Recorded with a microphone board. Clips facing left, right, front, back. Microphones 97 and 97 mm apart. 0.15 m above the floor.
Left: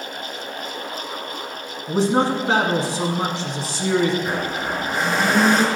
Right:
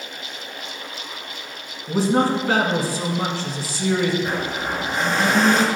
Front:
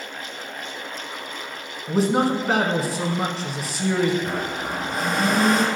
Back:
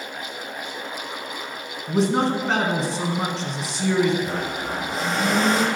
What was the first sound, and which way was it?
A man speaking, 80° left.